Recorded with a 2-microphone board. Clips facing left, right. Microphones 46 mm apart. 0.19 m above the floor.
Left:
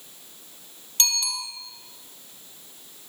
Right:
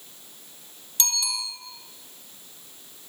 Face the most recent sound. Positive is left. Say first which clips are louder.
# left 1 dB
turn(degrees=45)  # may be behind; listen again after turning